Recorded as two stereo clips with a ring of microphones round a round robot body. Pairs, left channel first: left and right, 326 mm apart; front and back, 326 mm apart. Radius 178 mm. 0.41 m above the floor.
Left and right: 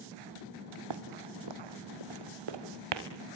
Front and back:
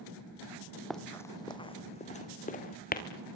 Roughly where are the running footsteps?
Right.